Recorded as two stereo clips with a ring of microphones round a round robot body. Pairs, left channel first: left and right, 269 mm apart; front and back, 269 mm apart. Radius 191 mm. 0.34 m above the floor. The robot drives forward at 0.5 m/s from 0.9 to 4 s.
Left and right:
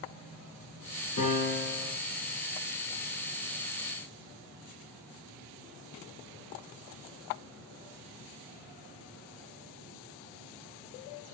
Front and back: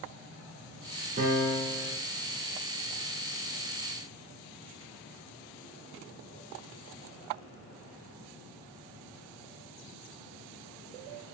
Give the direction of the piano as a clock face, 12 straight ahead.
8 o'clock.